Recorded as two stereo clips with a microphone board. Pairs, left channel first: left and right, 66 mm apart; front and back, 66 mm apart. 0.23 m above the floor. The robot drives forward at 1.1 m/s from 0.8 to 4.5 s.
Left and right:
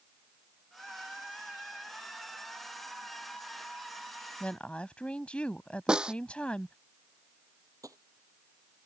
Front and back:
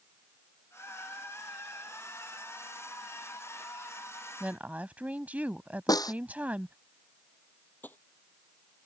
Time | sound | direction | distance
4.4 | a woman speaking | 135° left | ?
5.9 | a snare drum | 15° right | ?
7.8 | tapping | 60° right | ?